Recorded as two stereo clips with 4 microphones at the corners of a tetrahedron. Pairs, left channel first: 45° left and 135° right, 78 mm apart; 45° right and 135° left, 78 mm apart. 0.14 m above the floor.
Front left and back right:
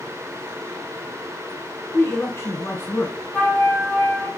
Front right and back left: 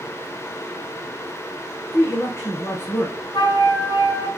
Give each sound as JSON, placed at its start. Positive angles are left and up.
{"t": 1.9, "sound": "a man speaking", "azimuth_deg": -5, "distance_m": 1.6}
{"t": 3.3, "sound": "a flute", "azimuth_deg": -25, "distance_m": 2.5}